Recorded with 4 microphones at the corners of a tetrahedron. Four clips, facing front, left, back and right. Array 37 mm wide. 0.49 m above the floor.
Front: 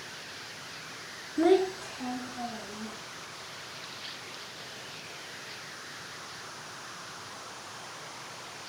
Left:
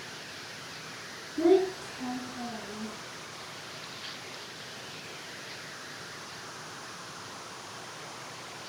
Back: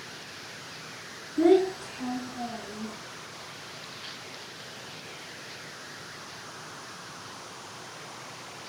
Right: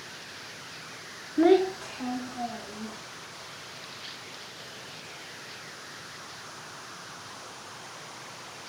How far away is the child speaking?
About 0.9 m.